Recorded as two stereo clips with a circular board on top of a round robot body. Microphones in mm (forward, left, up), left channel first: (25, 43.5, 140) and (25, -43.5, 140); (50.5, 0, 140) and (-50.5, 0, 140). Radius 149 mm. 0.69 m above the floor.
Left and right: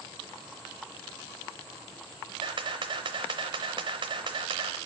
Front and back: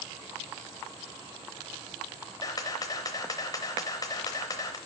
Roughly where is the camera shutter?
Ahead right.